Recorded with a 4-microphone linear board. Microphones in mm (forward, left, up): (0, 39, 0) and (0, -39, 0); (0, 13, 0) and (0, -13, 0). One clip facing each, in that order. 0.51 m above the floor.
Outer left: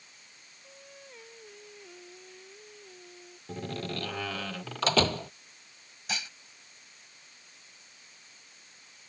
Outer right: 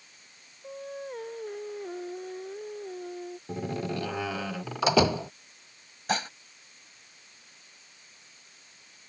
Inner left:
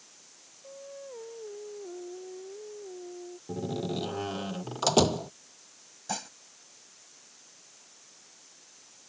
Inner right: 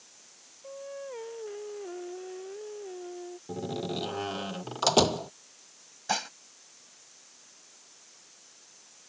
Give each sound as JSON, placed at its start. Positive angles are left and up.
{"t": 0.6, "sound": "singing", "side_deg": -45}
{"t": 3.5, "sound": "a door slam", "side_deg": -15}
{"t": 6.1, "sound": "dishes clattering", "side_deg": -45}